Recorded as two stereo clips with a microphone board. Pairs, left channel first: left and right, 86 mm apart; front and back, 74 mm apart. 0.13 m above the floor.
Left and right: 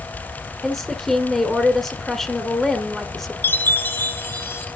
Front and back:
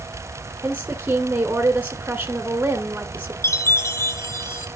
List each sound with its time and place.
0.6 s a woman speaking: 170° left, 1.3 m
3.4 s a chime: 35° left, 1.4 m